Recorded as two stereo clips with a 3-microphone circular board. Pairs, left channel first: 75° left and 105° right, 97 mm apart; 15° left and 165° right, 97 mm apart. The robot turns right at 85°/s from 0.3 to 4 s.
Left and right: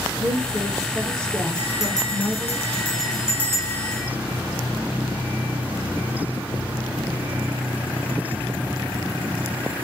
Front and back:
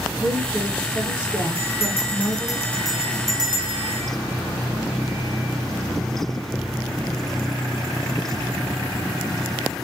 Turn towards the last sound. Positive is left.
turn(degrees=-160)